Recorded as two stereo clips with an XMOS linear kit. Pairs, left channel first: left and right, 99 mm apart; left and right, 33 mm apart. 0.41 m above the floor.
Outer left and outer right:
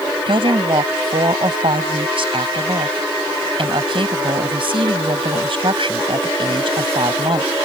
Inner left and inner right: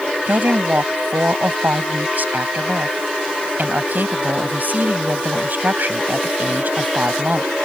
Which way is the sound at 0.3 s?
65° right (ahead or behind).